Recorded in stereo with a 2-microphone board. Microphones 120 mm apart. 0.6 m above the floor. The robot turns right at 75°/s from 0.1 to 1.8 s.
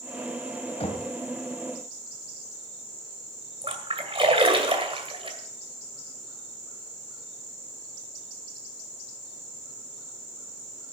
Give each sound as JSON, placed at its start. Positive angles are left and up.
{"t": 0.8, "sound": "knocking", "side_deg": 60, "distance_m": 2.5}
{"t": 3.6, "sound": "a splash", "side_deg": -50, "distance_m": 2.0}